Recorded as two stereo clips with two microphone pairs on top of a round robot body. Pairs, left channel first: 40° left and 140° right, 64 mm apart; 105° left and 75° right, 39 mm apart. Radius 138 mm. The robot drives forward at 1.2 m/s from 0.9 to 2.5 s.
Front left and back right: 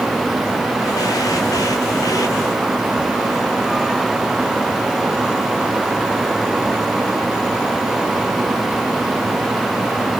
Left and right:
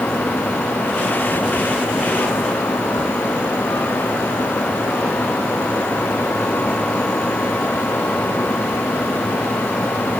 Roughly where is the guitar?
I don't hear a guitar.